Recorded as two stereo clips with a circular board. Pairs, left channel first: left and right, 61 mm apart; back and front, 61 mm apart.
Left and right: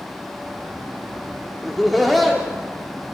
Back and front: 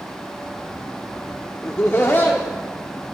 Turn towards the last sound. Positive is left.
turn(degrees=180)